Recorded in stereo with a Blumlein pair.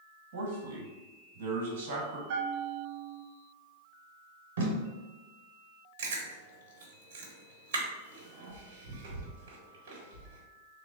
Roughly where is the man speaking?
Ahead right.